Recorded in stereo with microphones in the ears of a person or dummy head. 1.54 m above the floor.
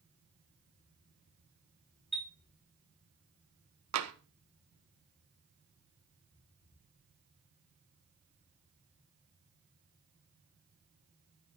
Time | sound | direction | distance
2.1 | a chime | centre (ahead or behind) | 1.2 m
3.9 | tapping | 80° right | 1.9 m